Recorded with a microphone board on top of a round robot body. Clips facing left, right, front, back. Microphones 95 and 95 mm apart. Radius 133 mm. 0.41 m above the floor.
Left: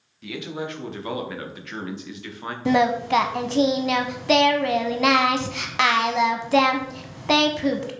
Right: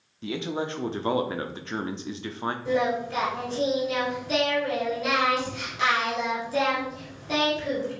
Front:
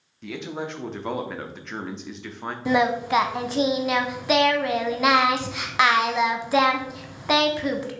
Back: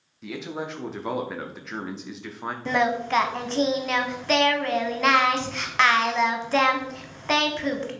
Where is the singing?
80° left, 0.8 m.